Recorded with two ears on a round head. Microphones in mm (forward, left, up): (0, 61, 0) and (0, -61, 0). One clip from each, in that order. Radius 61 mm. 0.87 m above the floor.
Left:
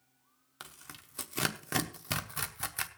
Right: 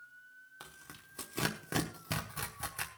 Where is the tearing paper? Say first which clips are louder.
Left 5 dB; 30° left (ahead or behind), 1.0 m.